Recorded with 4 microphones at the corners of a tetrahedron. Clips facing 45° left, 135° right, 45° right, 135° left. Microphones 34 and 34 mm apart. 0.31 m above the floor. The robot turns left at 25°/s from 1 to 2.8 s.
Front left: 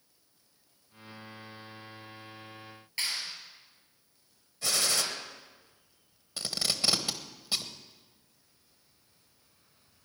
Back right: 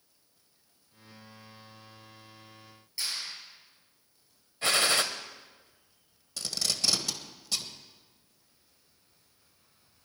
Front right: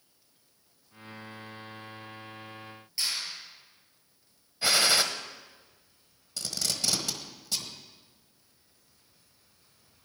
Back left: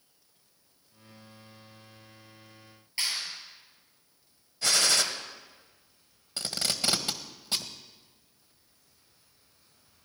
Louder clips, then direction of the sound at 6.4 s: Even, back left 2 dB; 100° left.